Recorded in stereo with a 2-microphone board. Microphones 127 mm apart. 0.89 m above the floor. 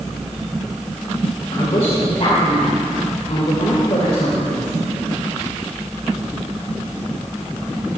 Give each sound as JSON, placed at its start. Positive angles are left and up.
{"t": 1.5, "sound": "a woman speaking", "side_deg": 55, "distance_m": 3.0}